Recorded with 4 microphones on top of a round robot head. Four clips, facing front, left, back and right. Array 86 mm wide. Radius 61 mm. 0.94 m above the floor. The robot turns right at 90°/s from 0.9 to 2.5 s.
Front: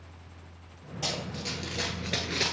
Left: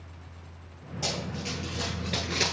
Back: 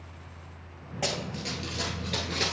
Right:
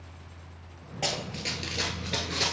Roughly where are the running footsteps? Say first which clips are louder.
Right 1 dB, back 3 dB; behind right.